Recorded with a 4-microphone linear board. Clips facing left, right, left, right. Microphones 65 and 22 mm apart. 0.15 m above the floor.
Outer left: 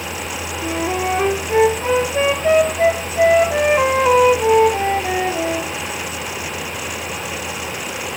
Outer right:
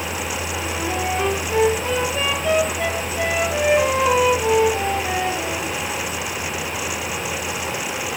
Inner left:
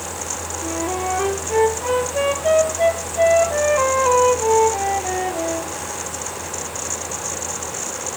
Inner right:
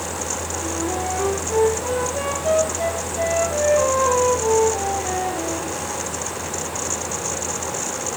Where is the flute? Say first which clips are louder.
Outer left 6 dB, inner left 3 dB; 30° left (ahead or behind), 1.8 m.